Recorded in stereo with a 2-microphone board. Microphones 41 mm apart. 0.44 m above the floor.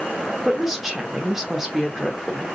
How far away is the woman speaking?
About 1.1 m.